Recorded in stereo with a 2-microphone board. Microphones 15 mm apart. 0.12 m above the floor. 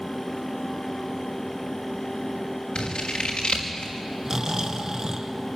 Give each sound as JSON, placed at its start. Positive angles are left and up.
{"t": 2.8, "sound": "scissors", "side_deg": 85, "distance_m": 5.0}
{"t": 4.2, "sound": "snoring", "side_deg": -30, "distance_m": 1.8}